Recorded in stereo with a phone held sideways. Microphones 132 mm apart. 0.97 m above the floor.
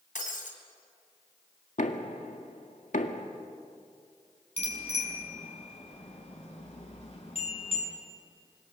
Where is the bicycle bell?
50° left (ahead or behind), 6.5 m.